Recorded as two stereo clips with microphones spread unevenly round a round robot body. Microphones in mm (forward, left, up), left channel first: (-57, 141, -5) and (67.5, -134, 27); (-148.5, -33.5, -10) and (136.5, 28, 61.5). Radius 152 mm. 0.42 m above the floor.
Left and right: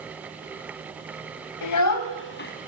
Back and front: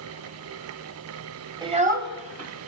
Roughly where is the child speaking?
Left.